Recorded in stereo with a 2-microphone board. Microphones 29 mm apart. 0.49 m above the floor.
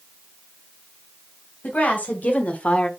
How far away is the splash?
No splash in this recording.